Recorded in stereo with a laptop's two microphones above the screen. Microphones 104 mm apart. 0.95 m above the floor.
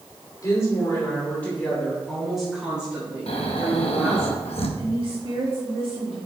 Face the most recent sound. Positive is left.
turn(degrees=-55)  # may be behind; listen again after turning